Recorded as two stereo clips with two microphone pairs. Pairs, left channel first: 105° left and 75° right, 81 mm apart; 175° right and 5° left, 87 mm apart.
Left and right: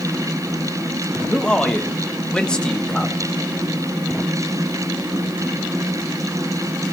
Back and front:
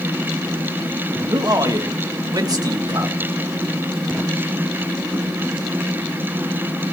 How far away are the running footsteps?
No running footsteps in this recording.